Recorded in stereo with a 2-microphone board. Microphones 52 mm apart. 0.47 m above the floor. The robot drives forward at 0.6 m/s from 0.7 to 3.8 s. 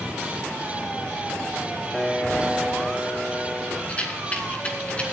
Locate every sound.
1.9 s a piano: centre (ahead or behind), 1.2 m
3.9 s a rattle: 25° left (ahead or behind), 3 m